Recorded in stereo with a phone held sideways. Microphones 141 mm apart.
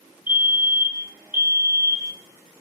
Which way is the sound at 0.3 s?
15° right (ahead or behind).